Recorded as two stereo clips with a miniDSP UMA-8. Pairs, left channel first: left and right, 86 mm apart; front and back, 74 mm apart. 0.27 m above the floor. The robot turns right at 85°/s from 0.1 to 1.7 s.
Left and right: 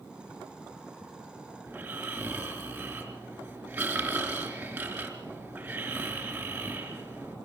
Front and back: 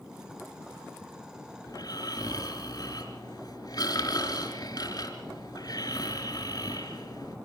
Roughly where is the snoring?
Ahead right.